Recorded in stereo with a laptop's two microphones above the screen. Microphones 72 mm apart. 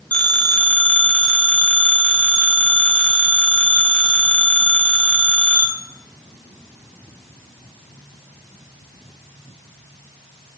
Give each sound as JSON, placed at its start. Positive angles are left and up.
{"t": 0.1, "sound": "a phone ringing", "side_deg": 15, "distance_m": 3.5}